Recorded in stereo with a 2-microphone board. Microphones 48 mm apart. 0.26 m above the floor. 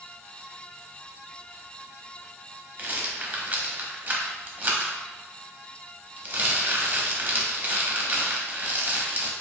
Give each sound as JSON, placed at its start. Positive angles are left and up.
{"t": 2.8, "sound": "a rattle", "side_deg": -40, "distance_m": 0.6}